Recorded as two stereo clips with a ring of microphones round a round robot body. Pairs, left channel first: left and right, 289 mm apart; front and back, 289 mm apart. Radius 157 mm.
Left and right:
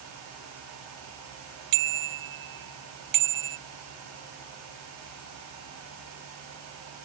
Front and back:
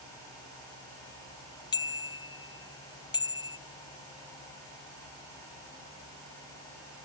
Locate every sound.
1.7 s a bicycle bell: 80° right